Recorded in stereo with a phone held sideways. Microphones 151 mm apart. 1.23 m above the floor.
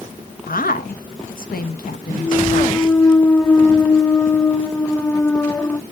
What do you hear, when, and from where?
0.5 s a woman speaking: 75° left (ahead or behind), 1.3 m
2.2 s a clunk: 15° left (ahead or behind), 0.5 m